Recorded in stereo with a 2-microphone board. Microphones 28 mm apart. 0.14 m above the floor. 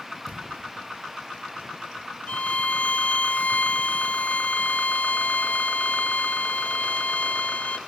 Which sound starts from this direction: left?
A violin, at 2.3 s.